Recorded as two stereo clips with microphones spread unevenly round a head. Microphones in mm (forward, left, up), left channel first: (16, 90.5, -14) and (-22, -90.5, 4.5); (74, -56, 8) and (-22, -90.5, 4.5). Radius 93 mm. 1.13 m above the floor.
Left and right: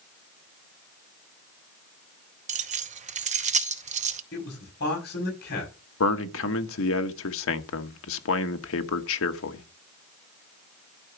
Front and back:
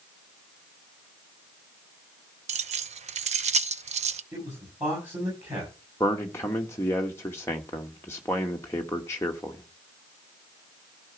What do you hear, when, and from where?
2.5 s keys jangling: 155° right, 0.8 m
4.3 s a man speaking: 120° left, 6.5 m
6.0 s a man speaking: 100° left, 1.2 m